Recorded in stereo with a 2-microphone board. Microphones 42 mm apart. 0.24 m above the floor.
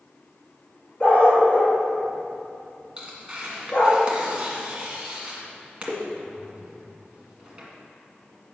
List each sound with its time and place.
1.0 s a dog barking: 25° left (ahead or behind), 2 m
3.0 s tearing paper: 25° right (ahead or behind), 1.8 m